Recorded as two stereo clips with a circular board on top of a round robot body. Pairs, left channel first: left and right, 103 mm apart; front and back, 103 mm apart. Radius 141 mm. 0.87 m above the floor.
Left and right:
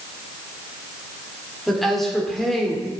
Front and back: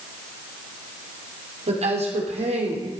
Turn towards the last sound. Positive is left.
turn(degrees=180)